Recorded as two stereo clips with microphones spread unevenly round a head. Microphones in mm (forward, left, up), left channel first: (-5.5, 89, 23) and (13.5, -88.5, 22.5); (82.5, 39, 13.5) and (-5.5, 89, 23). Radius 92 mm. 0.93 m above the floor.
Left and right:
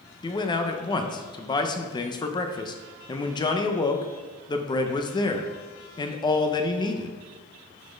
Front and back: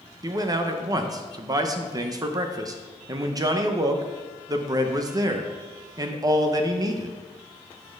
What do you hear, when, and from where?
0.2 s a man speaking: 135° left, 0.8 m